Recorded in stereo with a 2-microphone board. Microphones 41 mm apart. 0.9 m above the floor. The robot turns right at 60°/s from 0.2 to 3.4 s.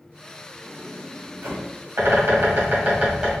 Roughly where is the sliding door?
Right.